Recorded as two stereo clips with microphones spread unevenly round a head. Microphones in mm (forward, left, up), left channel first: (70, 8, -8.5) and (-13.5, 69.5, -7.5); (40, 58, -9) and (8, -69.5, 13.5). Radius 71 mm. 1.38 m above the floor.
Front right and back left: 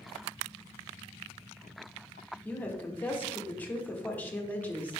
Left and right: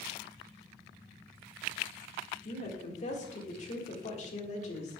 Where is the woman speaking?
40° left, 1.7 m.